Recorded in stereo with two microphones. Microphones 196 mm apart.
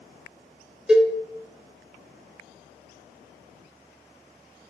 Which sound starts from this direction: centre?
A cowbell, at 0.9 s.